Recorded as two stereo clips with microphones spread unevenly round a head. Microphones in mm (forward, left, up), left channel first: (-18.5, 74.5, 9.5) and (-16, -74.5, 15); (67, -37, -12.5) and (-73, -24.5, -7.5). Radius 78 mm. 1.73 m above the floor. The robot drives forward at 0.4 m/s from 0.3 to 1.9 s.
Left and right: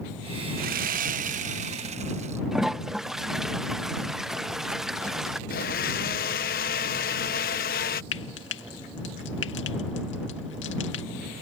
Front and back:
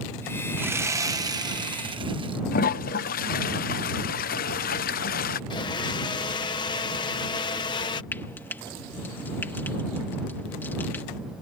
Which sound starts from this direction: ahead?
A toilet flushing, at 2.5 s.